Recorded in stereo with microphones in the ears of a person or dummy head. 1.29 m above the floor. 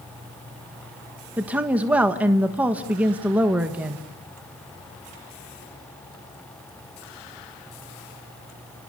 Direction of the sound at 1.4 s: 10° right (ahead or behind).